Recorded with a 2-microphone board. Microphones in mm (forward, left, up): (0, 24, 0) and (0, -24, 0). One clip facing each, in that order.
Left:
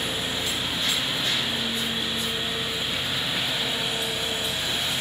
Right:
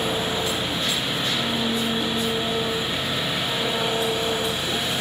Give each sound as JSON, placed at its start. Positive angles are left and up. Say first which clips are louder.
{"t": 0.0, "sound": "an engine running", "louder": "right 4 dB", "side_deg": -35}